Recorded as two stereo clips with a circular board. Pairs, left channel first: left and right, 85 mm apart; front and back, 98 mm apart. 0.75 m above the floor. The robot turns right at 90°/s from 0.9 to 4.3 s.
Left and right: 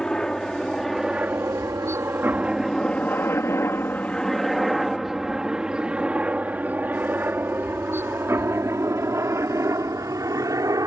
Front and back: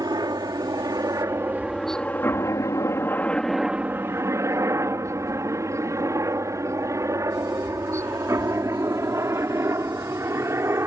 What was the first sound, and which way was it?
A helicopter, 170° left.